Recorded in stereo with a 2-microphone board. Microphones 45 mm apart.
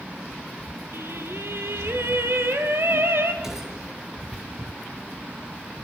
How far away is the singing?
About 2.5 m.